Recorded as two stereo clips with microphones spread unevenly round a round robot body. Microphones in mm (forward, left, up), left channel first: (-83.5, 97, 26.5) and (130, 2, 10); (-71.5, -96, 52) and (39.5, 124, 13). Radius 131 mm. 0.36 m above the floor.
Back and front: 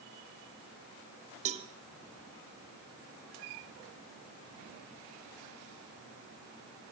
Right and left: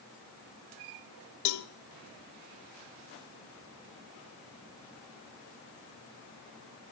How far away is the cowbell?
About 0.6 m.